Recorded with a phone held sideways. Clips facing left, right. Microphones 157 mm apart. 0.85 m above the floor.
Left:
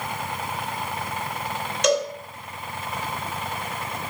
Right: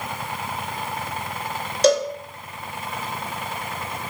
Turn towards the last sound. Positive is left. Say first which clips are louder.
# right 4 dB
turn(degrees=-35)  # may be behind; listen again after turning